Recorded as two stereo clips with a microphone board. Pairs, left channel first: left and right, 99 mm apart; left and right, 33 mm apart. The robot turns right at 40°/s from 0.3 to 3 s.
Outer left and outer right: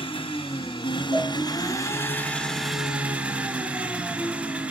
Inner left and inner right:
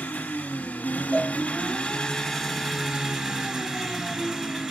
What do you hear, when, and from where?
0.0 s an engine running: 85° left, 1.4 m; by 4.7 s 165° right, 1.4 m
1.1 s a cowbell: 80° right, 5 m; by 1.4 s 70° right (ahead or behind), 5 m